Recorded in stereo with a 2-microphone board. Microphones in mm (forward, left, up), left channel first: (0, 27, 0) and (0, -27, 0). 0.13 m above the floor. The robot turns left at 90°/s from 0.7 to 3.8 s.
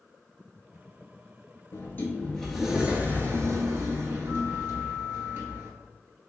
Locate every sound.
1.7 s a sliding door: 75° left, 0.7 m; by 5.8 s 115° right, 0.7 m